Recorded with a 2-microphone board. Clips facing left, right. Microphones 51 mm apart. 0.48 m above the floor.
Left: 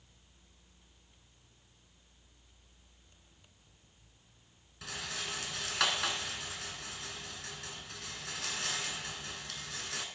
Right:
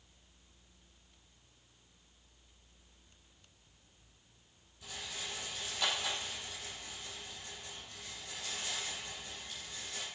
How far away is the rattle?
About 2.5 m.